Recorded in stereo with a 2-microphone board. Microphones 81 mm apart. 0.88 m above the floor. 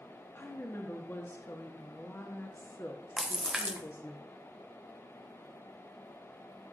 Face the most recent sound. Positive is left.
turn(degrees=-10)  # may be behind; listen again after turning